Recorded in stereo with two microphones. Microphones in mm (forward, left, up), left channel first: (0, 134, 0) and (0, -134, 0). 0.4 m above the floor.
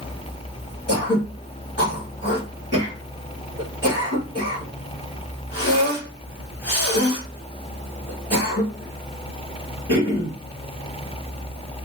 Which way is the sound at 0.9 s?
40° left (ahead or behind).